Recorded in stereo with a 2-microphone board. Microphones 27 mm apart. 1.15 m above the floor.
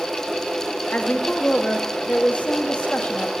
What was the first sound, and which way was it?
A woman speaking, 55° left (ahead or behind).